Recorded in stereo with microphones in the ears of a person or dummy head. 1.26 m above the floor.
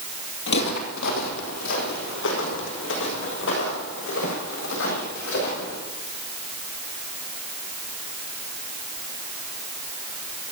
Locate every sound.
0.5 s footsteps: 55° left (ahead or behind), 2.5 m; by 5.8 s 65° left (ahead or behind), 10 m